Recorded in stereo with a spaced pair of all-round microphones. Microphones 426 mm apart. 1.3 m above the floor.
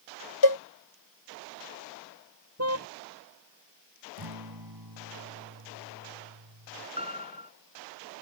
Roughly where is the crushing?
I don't hear crushing.